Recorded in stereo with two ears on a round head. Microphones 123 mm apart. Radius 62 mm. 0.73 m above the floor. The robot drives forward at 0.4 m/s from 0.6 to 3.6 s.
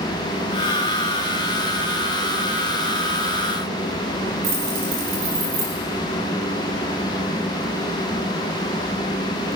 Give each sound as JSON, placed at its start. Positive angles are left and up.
{"t": 4.4, "sound": "keys jangling", "side_deg": -45, "distance_m": 4.0}